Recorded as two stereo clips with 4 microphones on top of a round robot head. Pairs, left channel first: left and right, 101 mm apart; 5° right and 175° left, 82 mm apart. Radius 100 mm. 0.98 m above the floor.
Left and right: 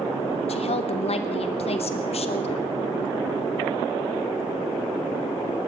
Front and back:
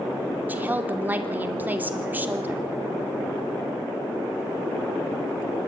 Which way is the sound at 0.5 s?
105° left.